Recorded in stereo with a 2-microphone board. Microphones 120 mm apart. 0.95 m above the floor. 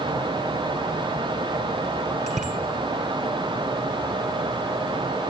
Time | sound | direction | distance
2.3 | a bicycle bell | 80° right | 2.5 m